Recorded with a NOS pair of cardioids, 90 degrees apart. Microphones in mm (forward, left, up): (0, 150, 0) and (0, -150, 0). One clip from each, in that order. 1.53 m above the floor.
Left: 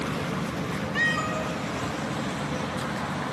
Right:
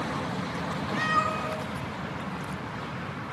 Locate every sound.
0.9 s a cat meowing: 55° left, 4 m